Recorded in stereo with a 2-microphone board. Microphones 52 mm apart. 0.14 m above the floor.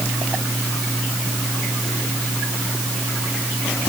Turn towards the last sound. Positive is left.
No sound to turn to.